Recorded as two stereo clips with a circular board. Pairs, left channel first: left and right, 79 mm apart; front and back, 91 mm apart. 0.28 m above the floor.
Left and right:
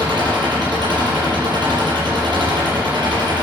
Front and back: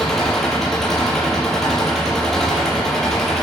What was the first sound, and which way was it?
An engine running, 85° right.